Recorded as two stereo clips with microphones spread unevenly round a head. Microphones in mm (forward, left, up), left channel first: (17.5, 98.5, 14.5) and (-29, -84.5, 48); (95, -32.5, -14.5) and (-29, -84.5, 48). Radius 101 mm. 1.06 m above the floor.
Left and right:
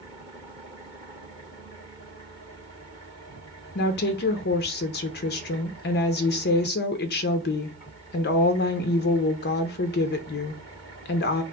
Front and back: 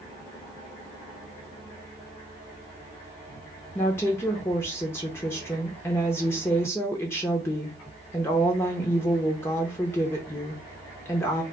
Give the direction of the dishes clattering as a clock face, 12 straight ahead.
No dishes clattering in this recording.